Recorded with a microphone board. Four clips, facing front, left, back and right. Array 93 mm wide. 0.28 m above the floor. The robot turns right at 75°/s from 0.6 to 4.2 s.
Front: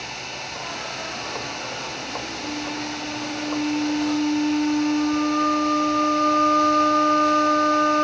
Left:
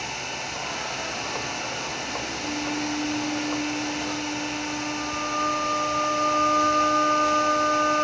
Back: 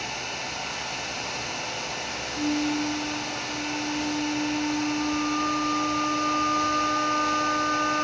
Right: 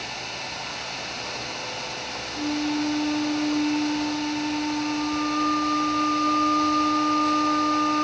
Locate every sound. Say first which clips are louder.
2.4 s a flute: right 6 dB, back 8 dB; 110° right, 4 m; by 8.0 s 30° left, 4 m